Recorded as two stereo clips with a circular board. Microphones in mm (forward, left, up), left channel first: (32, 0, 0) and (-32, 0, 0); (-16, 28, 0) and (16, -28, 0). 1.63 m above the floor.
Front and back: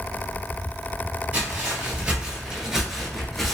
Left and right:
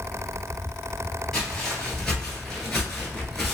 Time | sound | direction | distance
1.3 | footsteps | 175° right | 1.8 m